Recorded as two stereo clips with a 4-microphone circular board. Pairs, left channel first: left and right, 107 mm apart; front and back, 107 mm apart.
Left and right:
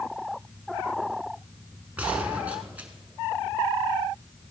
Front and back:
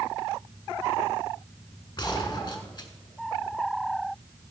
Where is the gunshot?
20° right, 1.4 m.